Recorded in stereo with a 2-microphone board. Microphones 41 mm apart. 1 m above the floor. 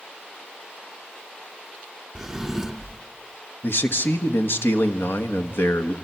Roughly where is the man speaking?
Left.